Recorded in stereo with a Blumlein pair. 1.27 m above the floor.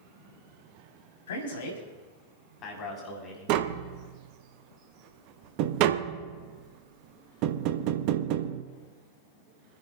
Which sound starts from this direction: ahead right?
Tapping, at 3.5 s.